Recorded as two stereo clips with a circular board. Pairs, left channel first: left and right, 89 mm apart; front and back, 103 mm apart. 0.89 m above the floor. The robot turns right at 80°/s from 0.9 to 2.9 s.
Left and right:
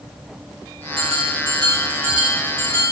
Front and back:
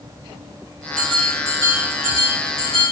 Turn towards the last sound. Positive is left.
turn(degrees=45)